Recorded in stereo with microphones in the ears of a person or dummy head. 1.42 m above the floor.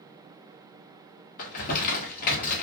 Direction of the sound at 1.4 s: 45° left (ahead or behind).